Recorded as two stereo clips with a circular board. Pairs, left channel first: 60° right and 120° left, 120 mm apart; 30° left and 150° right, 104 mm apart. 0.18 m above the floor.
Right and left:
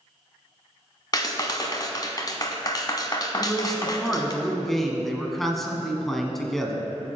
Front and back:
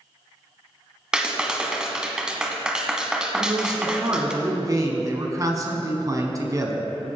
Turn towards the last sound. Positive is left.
turn(degrees=-145)